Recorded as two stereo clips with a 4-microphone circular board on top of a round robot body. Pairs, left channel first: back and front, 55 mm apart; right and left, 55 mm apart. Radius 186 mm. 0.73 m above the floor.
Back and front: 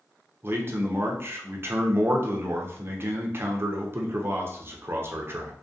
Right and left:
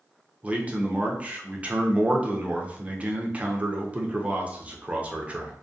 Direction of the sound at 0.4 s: 30° left.